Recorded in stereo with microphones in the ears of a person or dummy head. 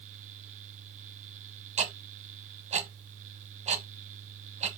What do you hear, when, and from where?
1.8 s ticking: 30° right (ahead or behind), 1.4 m